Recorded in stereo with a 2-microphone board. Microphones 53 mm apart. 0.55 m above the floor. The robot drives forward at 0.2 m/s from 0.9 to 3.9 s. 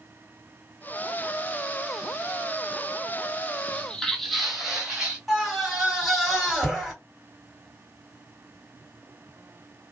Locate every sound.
3.7 s footsteps: 25° left (ahead or behind), 0.5 m; by 5.2 s 10° right (ahead or behind), 1.6 m
5.3 s a scream: 5° left (ahead or behind), 1.9 m